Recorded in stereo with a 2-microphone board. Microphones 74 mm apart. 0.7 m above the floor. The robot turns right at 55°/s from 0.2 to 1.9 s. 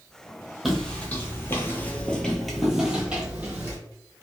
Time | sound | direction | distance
0.7 | footsteps | centre (ahead or behind) | 1.1 m